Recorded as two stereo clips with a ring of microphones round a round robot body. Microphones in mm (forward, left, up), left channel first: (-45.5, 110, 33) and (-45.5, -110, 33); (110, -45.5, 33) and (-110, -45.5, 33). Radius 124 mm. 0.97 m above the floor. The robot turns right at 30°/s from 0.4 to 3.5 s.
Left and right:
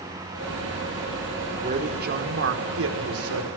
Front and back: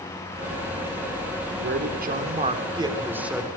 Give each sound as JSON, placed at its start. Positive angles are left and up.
{"t": 1.6, "sound": "a man speaking", "azimuth_deg": -145, "distance_m": 4.0}